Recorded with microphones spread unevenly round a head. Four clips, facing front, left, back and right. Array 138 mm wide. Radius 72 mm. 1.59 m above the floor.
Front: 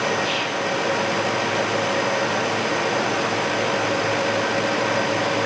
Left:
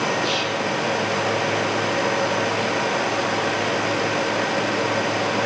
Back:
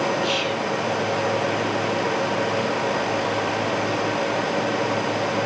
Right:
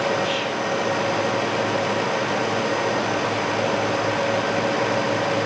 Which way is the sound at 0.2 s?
175° left.